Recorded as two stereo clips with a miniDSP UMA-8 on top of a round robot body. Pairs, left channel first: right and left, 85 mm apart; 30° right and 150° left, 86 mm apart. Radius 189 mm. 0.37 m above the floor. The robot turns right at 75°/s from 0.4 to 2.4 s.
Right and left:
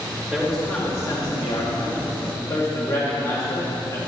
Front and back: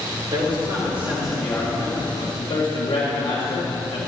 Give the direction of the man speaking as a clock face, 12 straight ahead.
6 o'clock.